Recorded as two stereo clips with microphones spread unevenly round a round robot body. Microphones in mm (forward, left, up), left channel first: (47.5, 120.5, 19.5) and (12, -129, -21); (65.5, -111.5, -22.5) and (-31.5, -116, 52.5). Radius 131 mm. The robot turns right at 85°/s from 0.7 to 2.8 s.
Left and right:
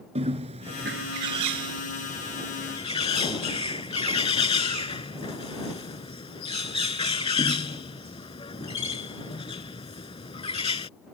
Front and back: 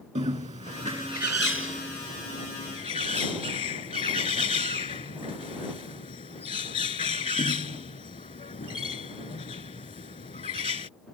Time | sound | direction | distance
0.1 | a bird | 165° right | ?